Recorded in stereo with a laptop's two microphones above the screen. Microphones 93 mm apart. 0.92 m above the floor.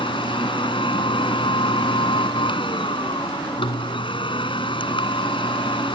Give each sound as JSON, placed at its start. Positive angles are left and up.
{"t": 0.0, "sound": "a machine running", "side_deg": 65}